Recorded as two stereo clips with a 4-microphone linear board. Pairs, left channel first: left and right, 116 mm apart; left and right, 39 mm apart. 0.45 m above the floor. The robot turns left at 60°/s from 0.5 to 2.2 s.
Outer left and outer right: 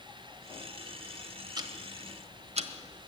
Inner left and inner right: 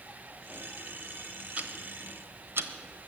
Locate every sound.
1.6 s ticking: 35° right (ahead or behind), 1.1 m; by 3.1 s 70° right (ahead or behind), 1.1 m